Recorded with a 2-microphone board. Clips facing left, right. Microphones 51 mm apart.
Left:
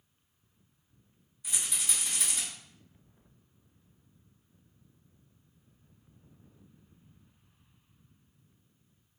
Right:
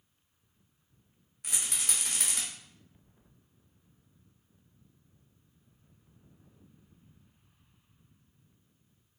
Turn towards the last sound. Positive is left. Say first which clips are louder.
# even
turn(degrees=-65)  # may be behind; listen again after turning